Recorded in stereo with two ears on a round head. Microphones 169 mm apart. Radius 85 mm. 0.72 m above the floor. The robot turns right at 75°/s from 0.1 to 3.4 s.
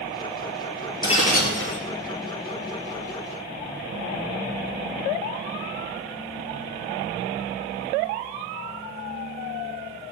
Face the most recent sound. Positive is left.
turn(degrees=-160)